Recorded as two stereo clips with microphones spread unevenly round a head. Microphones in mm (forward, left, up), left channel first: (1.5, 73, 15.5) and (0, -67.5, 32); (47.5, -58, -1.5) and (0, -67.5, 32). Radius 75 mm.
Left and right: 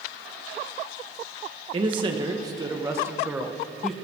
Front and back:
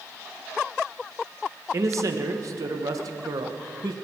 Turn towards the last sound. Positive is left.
turn(degrees=180)